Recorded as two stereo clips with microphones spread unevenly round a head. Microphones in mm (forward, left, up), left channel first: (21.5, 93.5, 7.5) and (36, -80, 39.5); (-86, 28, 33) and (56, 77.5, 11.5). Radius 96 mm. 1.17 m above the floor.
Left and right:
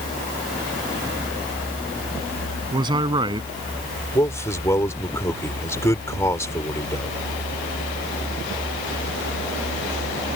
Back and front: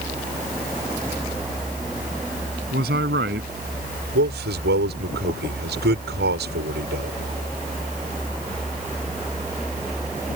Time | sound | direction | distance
2.7 | a man speaking | 20° right | ?
4.2 | a man speaking | 20° left | ?